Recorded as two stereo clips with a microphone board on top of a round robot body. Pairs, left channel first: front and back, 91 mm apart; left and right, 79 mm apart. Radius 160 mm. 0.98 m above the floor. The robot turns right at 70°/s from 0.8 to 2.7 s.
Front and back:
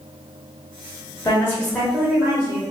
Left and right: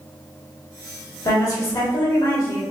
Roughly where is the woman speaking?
Ahead left.